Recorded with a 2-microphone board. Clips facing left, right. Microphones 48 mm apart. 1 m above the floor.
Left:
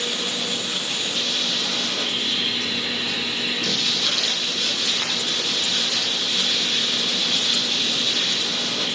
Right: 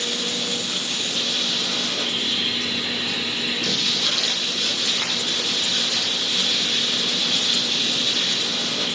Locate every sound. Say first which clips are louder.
0.0 s running water: even; 10° left (ahead or behind), 0.9 m
3.6 s footsteps: even; 10° right (ahead or behind), 3 m; by 8.8 s 5° left (ahead or behind), 6 m